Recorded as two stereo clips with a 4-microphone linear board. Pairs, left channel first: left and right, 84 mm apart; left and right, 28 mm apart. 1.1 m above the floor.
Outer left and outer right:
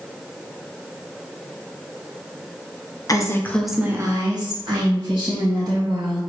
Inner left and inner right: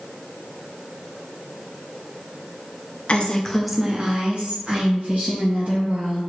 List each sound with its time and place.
3.1 s a woman speaking: 45° left (ahead or behind), 0.7 m; by 6.2 s 80° right, 2 m